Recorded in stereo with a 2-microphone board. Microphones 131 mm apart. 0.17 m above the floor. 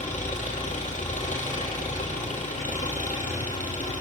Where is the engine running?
70° left (ahead or behind), 4.5 m.